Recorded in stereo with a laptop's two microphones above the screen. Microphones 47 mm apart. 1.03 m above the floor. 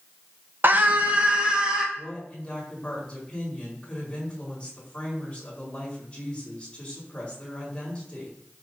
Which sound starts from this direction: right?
A scream, at 0.6 s.